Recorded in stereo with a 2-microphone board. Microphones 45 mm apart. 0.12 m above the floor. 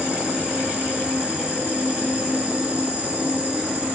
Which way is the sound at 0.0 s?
40° right (ahead or behind).